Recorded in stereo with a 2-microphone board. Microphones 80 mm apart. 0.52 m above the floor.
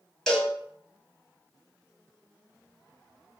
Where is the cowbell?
5° left (ahead or behind), 1.0 m.